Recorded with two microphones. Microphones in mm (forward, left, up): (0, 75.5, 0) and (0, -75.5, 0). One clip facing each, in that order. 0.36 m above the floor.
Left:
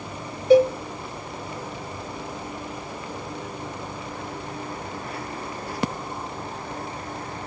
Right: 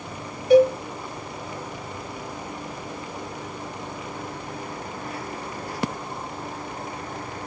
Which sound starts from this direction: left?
A cowbell, at 0.5 s.